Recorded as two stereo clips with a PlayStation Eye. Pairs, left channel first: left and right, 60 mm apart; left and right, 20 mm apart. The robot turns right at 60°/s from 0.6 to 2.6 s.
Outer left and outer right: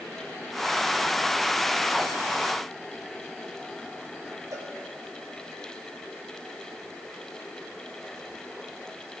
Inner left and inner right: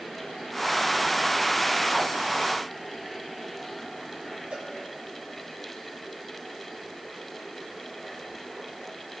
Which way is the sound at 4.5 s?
85° right.